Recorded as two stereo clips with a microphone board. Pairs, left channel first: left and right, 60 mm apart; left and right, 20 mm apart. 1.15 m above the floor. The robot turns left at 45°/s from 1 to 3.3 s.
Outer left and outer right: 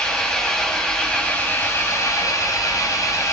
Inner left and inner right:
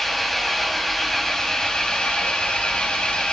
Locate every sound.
0.0 s an engine running: 160° left, 4.5 m; by 3.3 s 60° left, 4.5 m